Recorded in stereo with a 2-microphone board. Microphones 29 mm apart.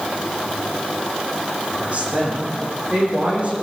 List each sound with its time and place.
1.8 s a woman speaking: 40° right (ahead or behind), 9 m; by 3.6 s 35° right (ahead or behind), 10 m